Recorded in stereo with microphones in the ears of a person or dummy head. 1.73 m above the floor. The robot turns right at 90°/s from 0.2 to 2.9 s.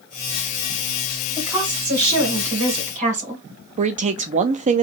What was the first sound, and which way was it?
A woman speaking, straight behind.